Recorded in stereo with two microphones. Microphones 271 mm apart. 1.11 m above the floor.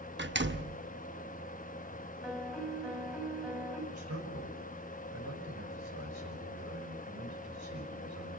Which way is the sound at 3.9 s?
65° right (ahead or behind).